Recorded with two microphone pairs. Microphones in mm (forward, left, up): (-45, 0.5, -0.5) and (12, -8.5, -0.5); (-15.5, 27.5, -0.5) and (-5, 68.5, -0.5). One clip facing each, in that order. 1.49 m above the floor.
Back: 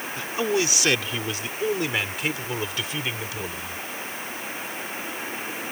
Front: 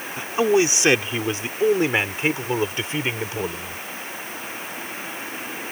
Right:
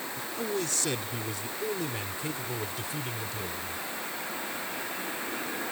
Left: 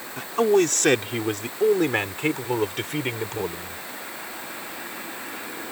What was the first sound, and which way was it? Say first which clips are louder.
A man speaking: front 6 dB, left 14 dB; 60° left.